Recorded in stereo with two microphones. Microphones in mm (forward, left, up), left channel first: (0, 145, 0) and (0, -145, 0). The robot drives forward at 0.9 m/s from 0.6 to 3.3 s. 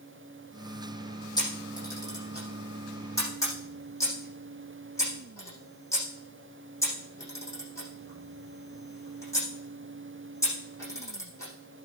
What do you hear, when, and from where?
1.4 s a camera shutter: 15° left (ahead or behind), 6 m; by 11.5 s 10° left (ahead or behind), 7.5 m